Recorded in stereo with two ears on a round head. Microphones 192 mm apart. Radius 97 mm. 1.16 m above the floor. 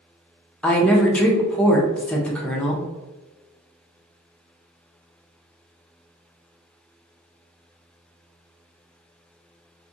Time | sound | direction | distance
0.6 | a woman speaking | 5° left (ahead or behind) | 0.6 m